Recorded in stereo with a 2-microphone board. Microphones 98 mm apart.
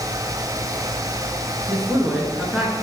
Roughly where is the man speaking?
Centre.